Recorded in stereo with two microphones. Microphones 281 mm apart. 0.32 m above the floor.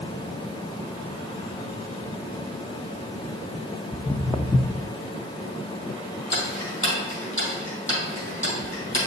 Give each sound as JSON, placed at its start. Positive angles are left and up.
{"t": 3.9, "sound": "footsteps", "side_deg": 15, "distance_m": 0.7}
{"t": 6.3, "sound": "ticking", "side_deg": 45, "distance_m": 3.5}